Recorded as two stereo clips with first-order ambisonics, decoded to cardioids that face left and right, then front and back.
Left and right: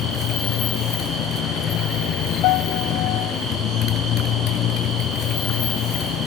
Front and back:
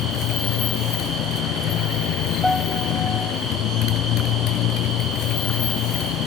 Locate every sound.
0.0 s a motorcycle: 40° left
2.4 s a piano: 85° left